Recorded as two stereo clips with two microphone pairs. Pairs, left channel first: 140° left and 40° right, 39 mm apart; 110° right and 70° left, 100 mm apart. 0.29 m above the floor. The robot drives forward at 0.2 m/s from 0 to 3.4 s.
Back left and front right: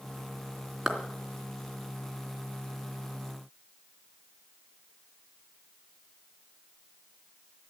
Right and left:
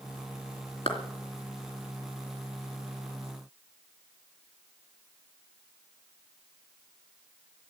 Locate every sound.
0.9 s a clap: 120° right, 3 m